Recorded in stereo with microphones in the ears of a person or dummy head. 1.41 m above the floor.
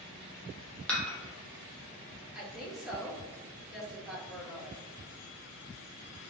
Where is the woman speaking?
Centre (ahead or behind), 2.0 m.